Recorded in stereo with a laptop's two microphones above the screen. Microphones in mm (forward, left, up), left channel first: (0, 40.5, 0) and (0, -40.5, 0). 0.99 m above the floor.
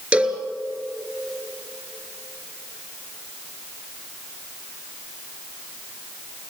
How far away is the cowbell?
About 3 m.